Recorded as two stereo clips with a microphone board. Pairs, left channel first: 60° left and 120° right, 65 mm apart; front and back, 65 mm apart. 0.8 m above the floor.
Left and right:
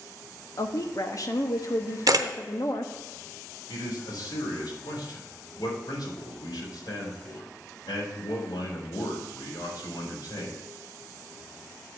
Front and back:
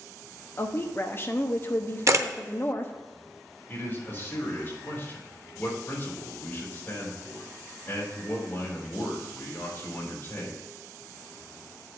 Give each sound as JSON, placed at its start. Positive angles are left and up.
{"t": 0.6, "sound": "a woman speaking", "azimuth_deg": 45, "distance_m": 0.9}
{"t": 2.1, "sound": "a camera shutter", "azimuth_deg": -140, "distance_m": 0.7}
{"t": 3.7, "sound": "a man speaking", "azimuth_deg": 60, "distance_m": 3.0}